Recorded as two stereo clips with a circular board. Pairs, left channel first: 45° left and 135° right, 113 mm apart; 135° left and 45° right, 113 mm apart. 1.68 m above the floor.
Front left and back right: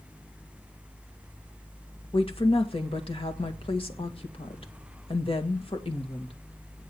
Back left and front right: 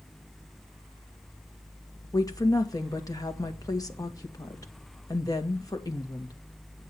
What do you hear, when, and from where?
2.1 s a woman speaking: 80° left, 2 m